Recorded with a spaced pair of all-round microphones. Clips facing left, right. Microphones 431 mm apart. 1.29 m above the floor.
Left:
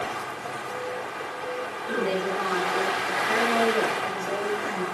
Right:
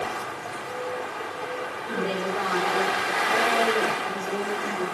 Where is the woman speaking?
40° left (ahead or behind), 5.5 m; by 4.8 s 80° left, 4.5 m.